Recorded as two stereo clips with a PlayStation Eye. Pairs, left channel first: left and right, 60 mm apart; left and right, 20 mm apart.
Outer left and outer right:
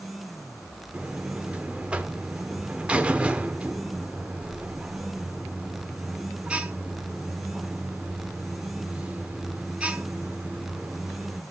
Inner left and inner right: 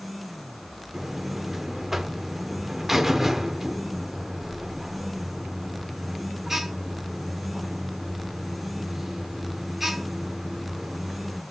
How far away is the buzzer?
About 0.7 m.